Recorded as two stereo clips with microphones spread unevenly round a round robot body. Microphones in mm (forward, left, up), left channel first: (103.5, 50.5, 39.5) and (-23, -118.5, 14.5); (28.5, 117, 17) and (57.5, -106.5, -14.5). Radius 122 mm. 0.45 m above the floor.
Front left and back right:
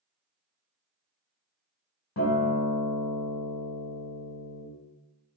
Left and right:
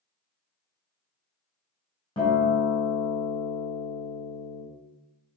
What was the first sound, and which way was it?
A guitar, 25° left.